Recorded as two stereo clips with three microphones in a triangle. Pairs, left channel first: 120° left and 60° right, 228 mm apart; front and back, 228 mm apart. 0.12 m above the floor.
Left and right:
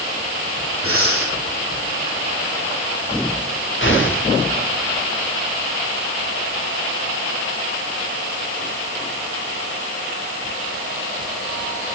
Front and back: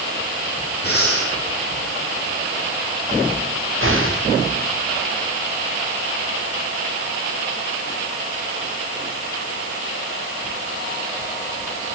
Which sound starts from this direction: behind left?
An explosion, at 3.8 s.